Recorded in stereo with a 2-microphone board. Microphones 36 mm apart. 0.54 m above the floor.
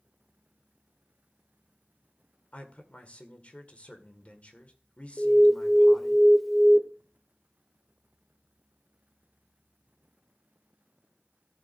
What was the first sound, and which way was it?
A man speaking, 35° left (ahead or behind).